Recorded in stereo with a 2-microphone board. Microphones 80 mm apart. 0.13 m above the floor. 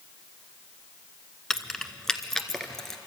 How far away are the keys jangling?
About 0.8 m.